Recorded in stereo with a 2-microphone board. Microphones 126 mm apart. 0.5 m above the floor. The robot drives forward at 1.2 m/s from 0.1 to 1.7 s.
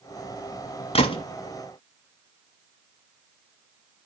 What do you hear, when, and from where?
0.9 s a gunshot: 50° left (ahead or behind), 1.1 m; by 1.2 s 40° left (ahead or behind), 1.3 m